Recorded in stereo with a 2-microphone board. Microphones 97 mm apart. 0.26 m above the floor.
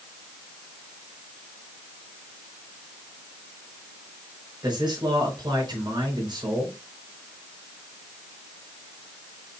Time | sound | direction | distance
4.6 | a man speaking | 50° right (ahead or behind) | 4 m